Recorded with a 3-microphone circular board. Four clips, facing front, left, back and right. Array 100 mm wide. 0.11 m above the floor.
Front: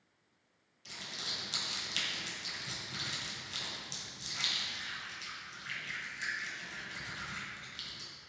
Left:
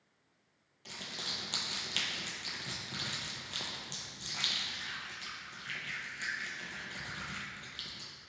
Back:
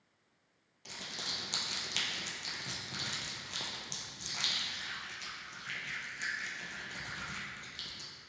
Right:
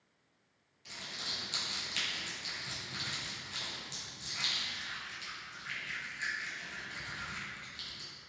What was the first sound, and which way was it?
Crumpling, 130° left.